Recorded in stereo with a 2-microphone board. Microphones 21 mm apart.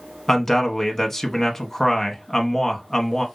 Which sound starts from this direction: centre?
A man speaking, at 0.3 s.